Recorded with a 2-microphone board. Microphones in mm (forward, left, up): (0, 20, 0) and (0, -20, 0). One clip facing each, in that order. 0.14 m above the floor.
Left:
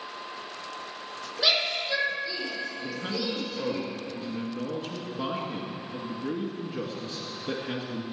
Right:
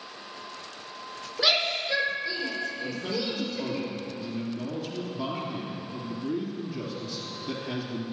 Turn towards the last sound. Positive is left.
turn(degrees=30)  # may be behind; listen again after turning